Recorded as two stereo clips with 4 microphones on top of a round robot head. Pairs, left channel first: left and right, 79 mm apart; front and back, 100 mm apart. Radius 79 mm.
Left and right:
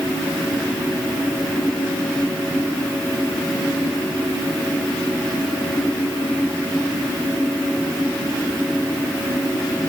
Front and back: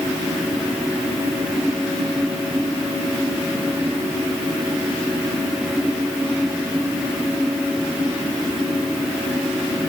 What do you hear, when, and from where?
Only background noise.